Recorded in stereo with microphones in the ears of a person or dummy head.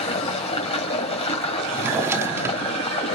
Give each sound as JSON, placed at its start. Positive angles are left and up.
{"t": 0.0, "sound": "running water", "side_deg": 30, "distance_m": 3.0}
{"t": 1.7, "sound": "a drawer", "side_deg": -15, "distance_m": 1.0}